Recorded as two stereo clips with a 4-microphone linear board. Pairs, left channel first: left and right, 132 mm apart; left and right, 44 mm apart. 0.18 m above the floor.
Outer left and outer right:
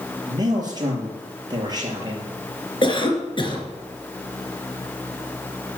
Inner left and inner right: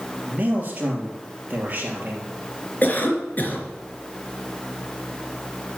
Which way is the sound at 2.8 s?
40° left (ahead or behind).